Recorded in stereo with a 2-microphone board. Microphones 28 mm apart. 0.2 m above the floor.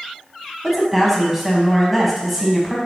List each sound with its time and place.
0.6 s a woman speaking: 10° right (ahead or behind), 1.3 m